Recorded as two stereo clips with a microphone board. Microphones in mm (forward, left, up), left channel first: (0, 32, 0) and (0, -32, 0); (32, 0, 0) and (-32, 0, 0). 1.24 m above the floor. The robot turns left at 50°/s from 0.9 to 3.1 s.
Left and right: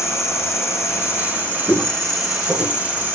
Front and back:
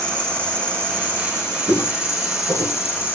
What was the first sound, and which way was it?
An insect, 70° left.